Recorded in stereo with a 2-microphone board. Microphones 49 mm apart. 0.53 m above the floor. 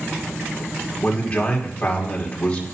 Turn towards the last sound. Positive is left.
turn(degrees=25)  # may be behind; listen again after turning